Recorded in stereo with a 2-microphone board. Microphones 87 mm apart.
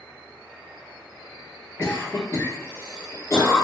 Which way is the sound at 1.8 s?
30° left (ahead or behind).